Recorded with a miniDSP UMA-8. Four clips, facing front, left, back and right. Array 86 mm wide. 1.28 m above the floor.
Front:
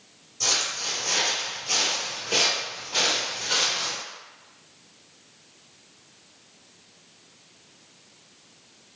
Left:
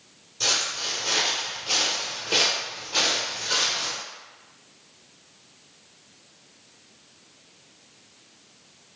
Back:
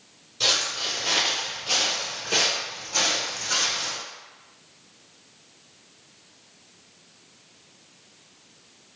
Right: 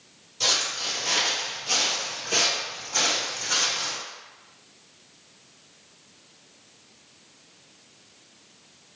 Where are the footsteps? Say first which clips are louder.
Even, back 2 dB; 170° right, 1.5 m; by 4.0 s 35° left, 1.7 m.